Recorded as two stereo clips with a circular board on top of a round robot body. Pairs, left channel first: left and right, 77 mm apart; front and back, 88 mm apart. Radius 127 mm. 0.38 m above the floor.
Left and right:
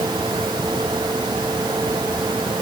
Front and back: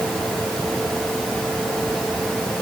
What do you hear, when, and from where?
Only background noise.